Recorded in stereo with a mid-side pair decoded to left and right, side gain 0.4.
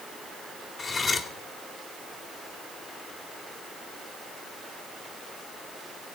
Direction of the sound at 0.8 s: 45° left.